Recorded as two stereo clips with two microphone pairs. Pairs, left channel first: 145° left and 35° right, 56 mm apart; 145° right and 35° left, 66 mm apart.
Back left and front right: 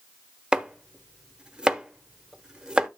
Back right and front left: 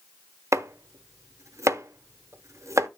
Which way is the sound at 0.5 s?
35° left.